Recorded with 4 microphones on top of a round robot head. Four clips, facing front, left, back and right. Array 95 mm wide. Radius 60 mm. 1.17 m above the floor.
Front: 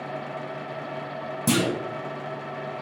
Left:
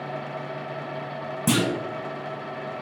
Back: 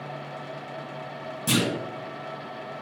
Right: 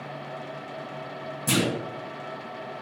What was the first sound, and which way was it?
A clunk, 60° left.